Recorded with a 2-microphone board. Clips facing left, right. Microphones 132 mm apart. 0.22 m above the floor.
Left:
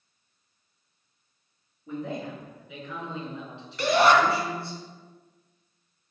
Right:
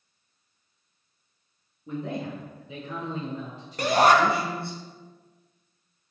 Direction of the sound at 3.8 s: 45° right (ahead or behind).